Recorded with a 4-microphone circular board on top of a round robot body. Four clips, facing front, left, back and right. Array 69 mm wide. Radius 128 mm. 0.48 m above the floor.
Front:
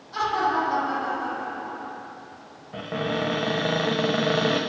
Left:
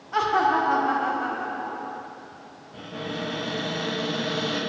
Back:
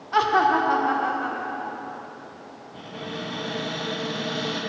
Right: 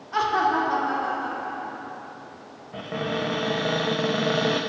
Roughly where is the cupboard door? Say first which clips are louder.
Right 5 dB, front 8 dB; ahead right.